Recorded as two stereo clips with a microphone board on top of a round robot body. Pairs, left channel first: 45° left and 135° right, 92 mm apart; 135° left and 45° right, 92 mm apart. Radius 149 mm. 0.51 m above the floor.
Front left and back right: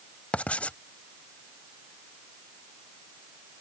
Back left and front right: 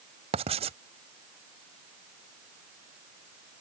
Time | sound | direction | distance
0.3 | writing | 30° right | ?